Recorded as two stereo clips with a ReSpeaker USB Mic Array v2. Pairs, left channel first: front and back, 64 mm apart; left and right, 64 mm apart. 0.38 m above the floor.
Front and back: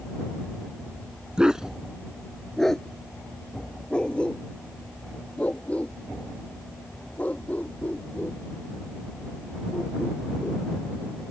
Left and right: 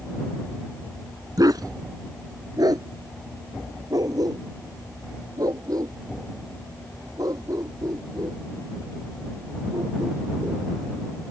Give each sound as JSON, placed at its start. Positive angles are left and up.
{"t": 1.4, "sound": "a dog barking", "azimuth_deg": -105}